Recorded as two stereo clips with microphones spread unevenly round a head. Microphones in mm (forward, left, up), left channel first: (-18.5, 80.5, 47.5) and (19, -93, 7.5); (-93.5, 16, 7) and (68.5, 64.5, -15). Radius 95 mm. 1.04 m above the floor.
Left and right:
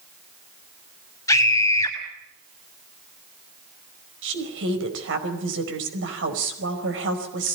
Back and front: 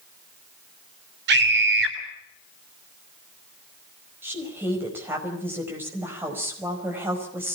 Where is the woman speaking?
65° right, 5 m.